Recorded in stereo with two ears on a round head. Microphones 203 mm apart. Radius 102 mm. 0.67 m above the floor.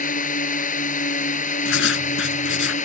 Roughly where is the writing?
Left.